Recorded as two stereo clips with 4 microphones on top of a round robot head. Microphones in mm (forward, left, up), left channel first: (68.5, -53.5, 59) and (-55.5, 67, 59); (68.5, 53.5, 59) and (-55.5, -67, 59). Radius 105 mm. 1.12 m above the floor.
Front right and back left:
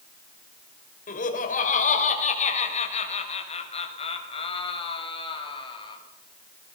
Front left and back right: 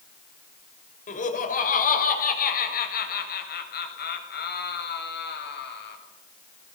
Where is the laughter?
Straight ahead, 6 m; by 6.0 s 20° left, 8.5 m.